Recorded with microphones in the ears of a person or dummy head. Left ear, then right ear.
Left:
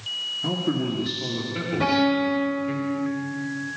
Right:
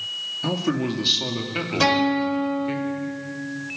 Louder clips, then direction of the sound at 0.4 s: Right 1 dB; 85° right.